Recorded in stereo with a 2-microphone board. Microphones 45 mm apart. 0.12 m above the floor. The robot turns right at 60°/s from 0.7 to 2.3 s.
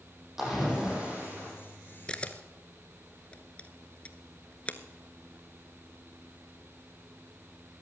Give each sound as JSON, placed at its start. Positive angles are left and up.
{"t": 0.4, "sound": "a splash", "azimuth_deg": -170, "distance_m": 5.5}
{"t": 2.1, "sound": "a camera shutter", "side_deg": 20, "distance_m": 0.7}